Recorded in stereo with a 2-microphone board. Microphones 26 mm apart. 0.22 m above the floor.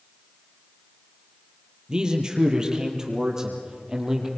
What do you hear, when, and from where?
1.9 s a man speaking: 25° right (ahead or behind), 4.5 m; by 4.3 s 15° right (ahead or behind), 5.5 m